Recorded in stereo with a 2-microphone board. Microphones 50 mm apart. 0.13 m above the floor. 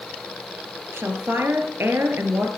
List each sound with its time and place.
0.9 s a woman speaking: 55° right (ahead or behind), 2.5 m